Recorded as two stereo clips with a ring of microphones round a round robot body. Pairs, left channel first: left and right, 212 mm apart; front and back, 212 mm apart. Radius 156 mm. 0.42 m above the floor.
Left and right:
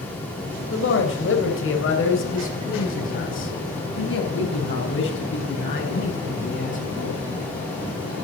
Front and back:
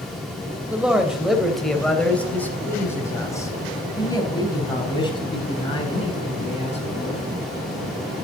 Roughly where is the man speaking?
Left.